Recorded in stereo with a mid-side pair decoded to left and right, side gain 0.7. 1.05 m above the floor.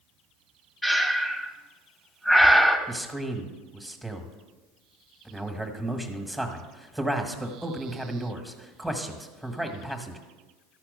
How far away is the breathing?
About 1.2 m.